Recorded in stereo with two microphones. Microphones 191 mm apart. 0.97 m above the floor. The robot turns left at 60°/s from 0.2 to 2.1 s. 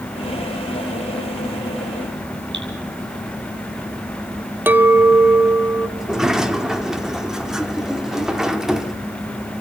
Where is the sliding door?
5° right (ahead or behind), 1.3 m.